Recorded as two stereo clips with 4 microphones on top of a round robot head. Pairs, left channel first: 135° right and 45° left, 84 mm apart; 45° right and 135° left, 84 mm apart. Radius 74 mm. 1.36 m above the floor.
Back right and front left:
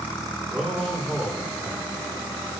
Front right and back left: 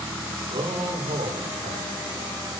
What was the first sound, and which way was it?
A man speaking, 140° left.